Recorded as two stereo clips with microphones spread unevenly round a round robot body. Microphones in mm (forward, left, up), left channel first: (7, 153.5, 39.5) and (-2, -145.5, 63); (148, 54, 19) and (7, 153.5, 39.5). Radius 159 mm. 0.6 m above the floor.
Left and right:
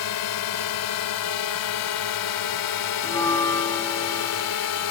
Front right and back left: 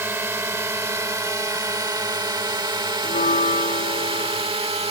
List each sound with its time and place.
0.0 s a drone: 70° left; by 4.9 s 90° left
3.0 s a bell: 5° left